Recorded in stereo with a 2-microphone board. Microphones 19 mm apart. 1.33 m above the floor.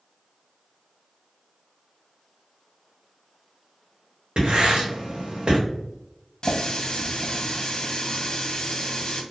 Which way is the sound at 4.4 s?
65° right (ahead or behind).